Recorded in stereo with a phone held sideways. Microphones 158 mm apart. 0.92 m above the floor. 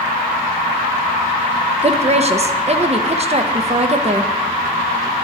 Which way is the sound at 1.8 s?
40° right (ahead or behind).